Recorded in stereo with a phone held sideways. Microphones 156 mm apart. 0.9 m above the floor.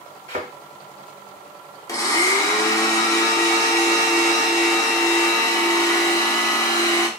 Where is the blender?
20° left (ahead or behind), 0.6 m.